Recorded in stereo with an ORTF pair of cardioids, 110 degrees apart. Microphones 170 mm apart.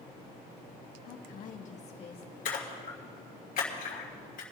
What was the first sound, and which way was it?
A woman speaking, 70° left.